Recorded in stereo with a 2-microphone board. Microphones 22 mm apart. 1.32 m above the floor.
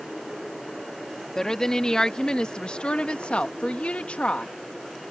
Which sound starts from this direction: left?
A woman speaking, at 1.4 s.